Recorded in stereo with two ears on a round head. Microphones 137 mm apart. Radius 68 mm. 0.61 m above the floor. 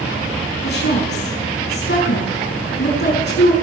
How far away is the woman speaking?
About 5.5 m.